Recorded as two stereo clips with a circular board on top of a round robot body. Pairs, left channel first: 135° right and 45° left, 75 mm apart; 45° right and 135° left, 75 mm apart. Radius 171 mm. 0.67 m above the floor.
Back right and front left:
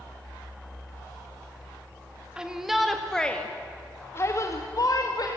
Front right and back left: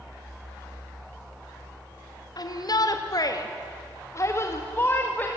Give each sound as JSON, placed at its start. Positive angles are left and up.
{"t": 2.4, "sound": "a shout", "azimuth_deg": -30, "distance_m": 2.0}